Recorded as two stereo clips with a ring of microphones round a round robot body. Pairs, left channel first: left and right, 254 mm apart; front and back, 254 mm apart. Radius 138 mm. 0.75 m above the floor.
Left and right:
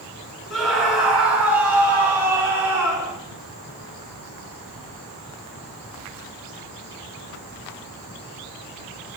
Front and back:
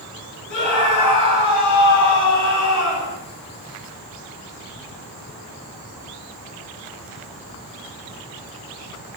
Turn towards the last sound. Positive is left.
turn(degrees=-15)